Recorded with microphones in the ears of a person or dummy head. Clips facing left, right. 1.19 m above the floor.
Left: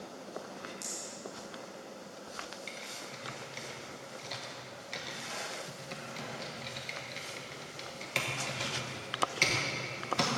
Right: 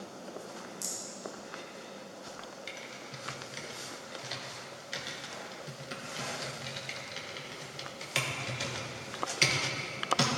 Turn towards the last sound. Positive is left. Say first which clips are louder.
# even
turn(degrees=-5)  # may be behind; listen again after turning